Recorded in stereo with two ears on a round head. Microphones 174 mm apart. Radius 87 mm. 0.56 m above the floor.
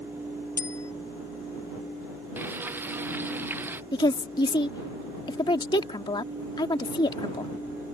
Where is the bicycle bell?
15° left (ahead or behind).